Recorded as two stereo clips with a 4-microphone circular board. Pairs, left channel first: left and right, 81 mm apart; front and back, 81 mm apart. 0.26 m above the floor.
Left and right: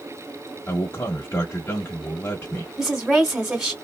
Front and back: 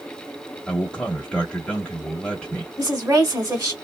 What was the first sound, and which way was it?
A man speaking, 70° left.